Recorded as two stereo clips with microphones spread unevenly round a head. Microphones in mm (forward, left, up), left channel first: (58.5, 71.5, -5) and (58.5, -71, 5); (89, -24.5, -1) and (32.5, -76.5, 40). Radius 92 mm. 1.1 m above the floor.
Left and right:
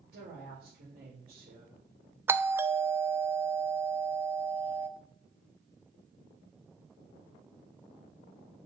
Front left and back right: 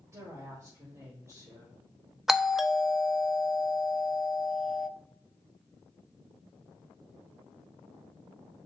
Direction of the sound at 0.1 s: 85° right.